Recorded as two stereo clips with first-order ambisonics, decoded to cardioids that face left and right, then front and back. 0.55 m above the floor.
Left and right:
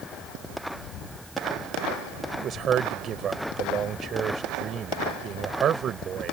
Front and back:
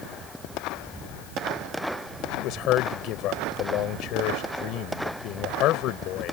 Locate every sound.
2.3 s a man speaking: 35° right